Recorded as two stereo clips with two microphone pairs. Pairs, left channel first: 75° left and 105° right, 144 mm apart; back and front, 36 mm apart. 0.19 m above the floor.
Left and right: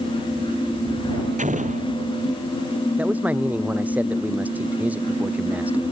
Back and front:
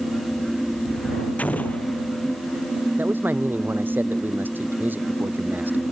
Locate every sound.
1.4 s an explosion: 135° right
3.0 s a man speaking: 25° right